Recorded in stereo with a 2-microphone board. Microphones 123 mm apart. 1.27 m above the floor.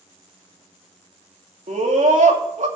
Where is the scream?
85° right, 3 m.